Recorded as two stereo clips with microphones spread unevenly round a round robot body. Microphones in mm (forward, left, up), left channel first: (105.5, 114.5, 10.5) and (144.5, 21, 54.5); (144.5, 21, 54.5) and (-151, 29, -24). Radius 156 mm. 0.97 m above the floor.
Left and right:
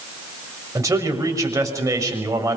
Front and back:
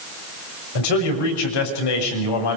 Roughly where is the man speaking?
Ahead.